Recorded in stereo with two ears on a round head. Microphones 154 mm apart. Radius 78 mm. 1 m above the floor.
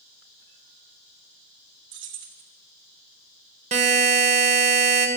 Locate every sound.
1.9 s keys jangling: 85° right, 1.1 m
3.7 s a buzzer: 40° right (ahead or behind), 1.0 m